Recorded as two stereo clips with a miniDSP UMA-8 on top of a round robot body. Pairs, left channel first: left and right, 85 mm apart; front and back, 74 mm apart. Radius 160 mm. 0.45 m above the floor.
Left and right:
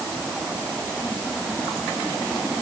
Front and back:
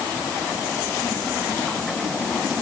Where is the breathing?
I don't hear breathing.